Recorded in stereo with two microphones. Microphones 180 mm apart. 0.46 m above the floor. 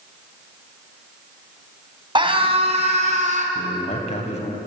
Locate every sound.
2.1 s a scream: 25° right (ahead or behind), 3 m; by 3.5 s 45° right (ahead or behind), 3.5 m
3.5 s a man speaking: 35° left (ahead or behind), 3 m